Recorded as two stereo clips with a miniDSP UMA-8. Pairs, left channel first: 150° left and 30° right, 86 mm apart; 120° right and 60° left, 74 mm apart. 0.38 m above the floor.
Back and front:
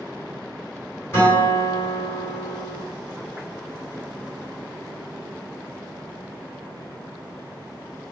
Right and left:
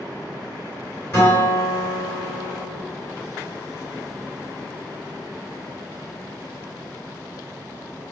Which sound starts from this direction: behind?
A guitar, at 1.1 s.